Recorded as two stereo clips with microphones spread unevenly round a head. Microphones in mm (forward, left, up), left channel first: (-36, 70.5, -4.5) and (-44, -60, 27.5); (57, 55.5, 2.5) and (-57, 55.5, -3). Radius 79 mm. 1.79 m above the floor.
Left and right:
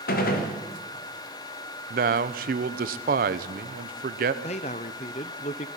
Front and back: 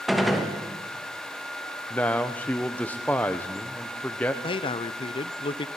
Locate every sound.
0.1 s a gunshot: 90° left, 3 m
1.9 s a man speaking: 80° right, 1.1 m
4.4 s a man speaking: 30° left, 0.8 m